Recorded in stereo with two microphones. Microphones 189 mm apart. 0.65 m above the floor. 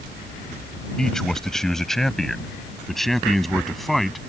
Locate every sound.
1.0 s a man speaking: 5° left (ahead or behind); by 4.2 s centre (ahead or behind)